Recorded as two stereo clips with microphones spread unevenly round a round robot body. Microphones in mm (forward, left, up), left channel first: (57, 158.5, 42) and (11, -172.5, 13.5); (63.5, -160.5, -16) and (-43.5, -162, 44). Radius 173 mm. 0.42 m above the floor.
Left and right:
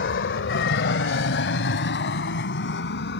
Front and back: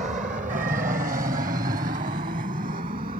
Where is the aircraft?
130° left; by 3.2 s 145° left.